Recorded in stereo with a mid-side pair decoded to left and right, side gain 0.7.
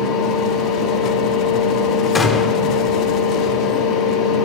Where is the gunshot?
30° left, 1.6 m.